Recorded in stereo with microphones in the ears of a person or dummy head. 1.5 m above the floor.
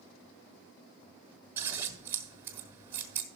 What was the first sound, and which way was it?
Scissors, 20° right (ahead or behind).